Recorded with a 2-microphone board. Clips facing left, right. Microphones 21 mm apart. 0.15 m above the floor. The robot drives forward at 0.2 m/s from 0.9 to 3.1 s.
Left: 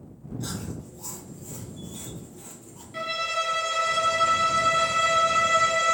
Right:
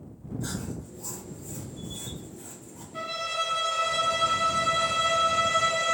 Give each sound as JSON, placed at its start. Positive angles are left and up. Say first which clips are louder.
{"t": 0.4, "sound": "chewing", "louder": "even", "side_deg": 55, "distance_m": 1.3}
{"t": 2.9, "sound": "a violin", "louder": "left 3 dB", "side_deg": 55, "distance_m": 1.0}